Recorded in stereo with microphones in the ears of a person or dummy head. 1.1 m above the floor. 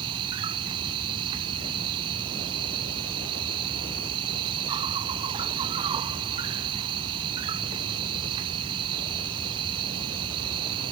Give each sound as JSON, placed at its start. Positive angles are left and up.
{"t": 0.0, "sound": "an insect", "side_deg": -30}